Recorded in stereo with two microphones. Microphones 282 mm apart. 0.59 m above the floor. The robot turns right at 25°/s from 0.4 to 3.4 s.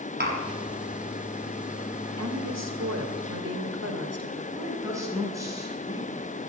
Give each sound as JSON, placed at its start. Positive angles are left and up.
{"t": 0.2, "sound": "tapping", "side_deg": -35, "distance_m": 5.0}
{"t": 2.2, "sound": "a woman speaking", "azimuth_deg": -100, "distance_m": 2.5}
{"t": 4.5, "sound": "a woman speaking", "side_deg": -10, "distance_m": 5.5}